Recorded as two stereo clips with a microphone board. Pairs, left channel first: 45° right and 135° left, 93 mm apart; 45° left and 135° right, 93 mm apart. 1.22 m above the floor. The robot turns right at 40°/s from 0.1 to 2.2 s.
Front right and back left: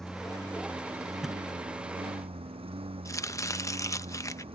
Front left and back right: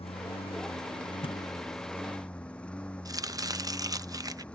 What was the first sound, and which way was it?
A lawn mower, 40° left.